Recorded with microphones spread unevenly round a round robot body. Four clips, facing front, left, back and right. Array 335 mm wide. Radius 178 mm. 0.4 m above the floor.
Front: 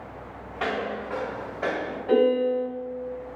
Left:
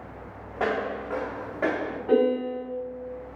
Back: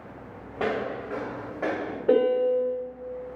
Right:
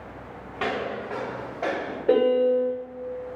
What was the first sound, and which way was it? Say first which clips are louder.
Footsteps: left 1 dB, even; 160° left.